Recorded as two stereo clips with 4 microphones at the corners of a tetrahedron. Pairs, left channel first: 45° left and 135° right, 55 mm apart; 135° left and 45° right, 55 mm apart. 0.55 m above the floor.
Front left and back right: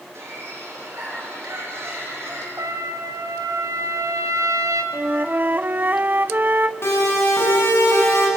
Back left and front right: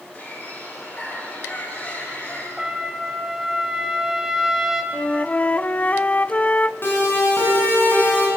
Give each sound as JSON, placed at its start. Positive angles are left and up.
{"t": 0.1, "sound": "a bird", "azimuth_deg": -175, "distance_m": 8.5}
{"t": 2.6, "sound": "a trumpet", "azimuth_deg": -130, "distance_m": 1.9}
{"t": 4.9, "sound": "a flute", "azimuth_deg": -170, "distance_m": 0.5}
{"t": 6.8, "sound": "a siren", "azimuth_deg": 90, "distance_m": 8.0}